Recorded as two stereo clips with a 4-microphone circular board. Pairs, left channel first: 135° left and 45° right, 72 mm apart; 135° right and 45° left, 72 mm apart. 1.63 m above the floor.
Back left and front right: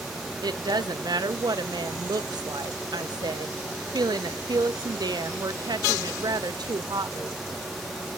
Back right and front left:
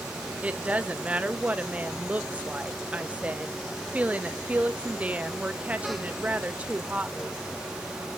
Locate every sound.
0.4 s a woman speaking: 25° right, 0.7 m